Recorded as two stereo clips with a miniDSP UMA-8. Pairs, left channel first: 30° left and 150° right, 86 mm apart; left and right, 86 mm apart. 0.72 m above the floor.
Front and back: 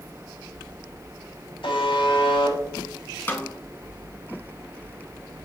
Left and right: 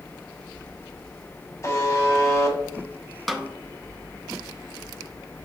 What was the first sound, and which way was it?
A buzzer, 35° left.